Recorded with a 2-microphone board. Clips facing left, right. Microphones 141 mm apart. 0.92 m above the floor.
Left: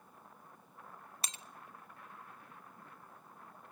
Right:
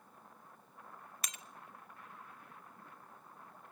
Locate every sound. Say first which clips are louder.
1.2 s breaking glass: left 2 dB; 30° left (ahead or behind), 0.6 m